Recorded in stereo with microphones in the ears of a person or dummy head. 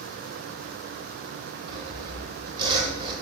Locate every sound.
1.7 s sawing: 25° right (ahead or behind), 1.9 m